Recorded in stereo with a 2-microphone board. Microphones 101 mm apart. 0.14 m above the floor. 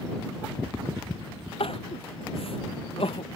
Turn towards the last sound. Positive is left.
turn(degrees=65)  # may be behind; listen again after turning